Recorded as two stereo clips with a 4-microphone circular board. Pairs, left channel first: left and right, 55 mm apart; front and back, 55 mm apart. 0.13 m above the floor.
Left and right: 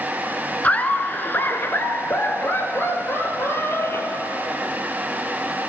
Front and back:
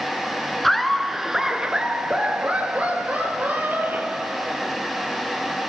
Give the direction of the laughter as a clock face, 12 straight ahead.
9 o'clock.